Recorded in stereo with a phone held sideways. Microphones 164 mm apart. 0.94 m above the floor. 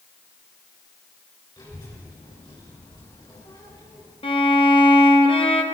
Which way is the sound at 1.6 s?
30° left (ahead or behind).